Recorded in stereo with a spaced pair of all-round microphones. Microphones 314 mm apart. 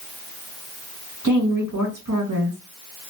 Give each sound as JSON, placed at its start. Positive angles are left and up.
{"t": 1.2, "sound": "a woman speaking", "side_deg": -65, "distance_m": 1.5}